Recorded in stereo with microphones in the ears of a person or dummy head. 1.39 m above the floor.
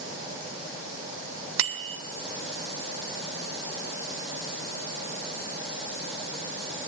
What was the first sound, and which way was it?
A bicycle bell, 80° right.